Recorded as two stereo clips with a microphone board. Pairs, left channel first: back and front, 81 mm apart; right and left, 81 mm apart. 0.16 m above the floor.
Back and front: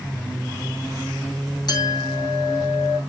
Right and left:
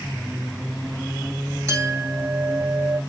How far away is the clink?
About 4 m.